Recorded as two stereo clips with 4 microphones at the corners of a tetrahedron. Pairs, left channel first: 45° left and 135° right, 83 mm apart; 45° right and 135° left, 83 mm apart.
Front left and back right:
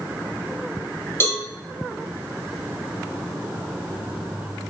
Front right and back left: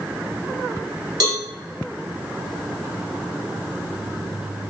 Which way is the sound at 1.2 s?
105° left.